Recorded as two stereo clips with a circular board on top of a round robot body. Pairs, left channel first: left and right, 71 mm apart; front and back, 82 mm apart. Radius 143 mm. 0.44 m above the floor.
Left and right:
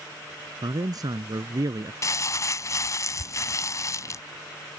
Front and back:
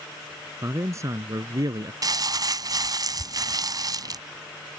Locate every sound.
0.6 s a man speaking: 120° right; by 1.9 s 135° right
2.0 s crumpling: 140° left